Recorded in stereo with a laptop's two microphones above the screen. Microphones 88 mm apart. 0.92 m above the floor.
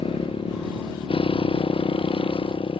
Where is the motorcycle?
80° left; by 2.8 s 75° left (ahead or behind).